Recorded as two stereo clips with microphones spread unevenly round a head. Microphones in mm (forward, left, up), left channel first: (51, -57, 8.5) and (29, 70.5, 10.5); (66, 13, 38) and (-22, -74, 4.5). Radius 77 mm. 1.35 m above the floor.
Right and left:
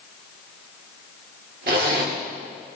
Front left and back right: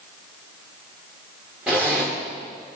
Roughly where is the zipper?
Behind left.